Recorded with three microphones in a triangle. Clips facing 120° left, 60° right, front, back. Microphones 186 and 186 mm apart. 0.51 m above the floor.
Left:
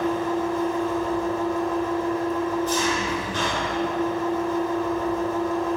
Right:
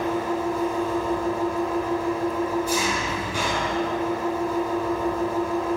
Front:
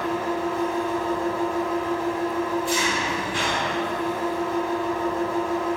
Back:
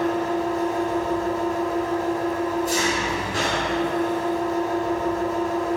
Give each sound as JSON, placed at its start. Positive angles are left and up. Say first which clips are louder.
{"t": 0.0, "sound": "an engine running", "louder": "left 1 dB, back 3 dB", "azimuth_deg": -135, "distance_m": 1.8}